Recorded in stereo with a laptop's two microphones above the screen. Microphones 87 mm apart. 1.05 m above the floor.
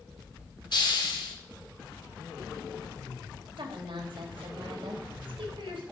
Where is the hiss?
55° left (ahead or behind), 1.4 m.